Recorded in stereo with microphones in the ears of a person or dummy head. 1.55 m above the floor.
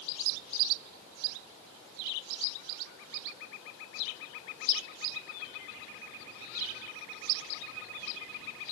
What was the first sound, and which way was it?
Only background noise.